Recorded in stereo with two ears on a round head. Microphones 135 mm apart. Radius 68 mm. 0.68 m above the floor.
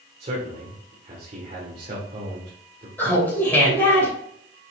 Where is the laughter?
10° left (ahead or behind), 3 m.